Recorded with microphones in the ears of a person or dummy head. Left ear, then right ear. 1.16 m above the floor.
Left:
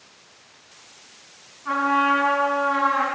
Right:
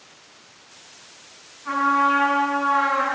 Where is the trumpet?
20° left (ahead or behind), 5.5 m.